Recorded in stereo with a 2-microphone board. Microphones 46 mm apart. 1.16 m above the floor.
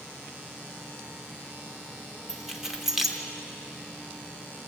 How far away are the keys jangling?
About 0.9 m.